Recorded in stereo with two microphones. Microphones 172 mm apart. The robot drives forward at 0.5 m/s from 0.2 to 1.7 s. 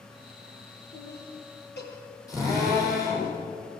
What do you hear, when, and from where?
0.9 s laughter: 75° left (ahead or behind), 6.5 m; by 3.3 s 80° left, 6.5 m
2.3 s a drill: 20° left (ahead or behind), 9.5 m